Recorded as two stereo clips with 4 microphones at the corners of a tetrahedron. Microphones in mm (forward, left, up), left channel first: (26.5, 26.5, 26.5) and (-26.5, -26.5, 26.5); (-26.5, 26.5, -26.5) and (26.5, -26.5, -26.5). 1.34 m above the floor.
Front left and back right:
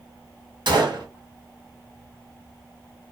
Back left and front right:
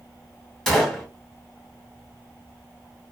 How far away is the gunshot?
About 1.1 m.